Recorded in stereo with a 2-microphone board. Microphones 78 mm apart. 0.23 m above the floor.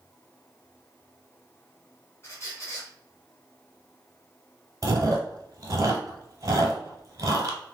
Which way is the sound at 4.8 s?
45° right (ahead or behind).